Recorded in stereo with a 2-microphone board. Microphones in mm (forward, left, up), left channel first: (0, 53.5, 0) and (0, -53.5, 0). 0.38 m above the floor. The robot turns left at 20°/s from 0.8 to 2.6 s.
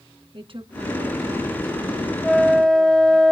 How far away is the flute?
About 1.5 m.